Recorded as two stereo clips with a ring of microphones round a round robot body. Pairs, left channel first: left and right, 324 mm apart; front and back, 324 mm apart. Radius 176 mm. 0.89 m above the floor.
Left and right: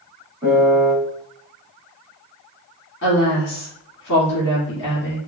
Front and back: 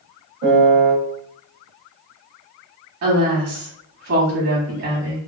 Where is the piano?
170° right, 1.8 m.